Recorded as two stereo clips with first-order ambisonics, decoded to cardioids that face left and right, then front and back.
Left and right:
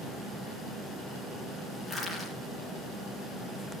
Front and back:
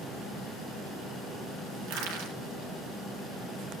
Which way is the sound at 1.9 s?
175° right.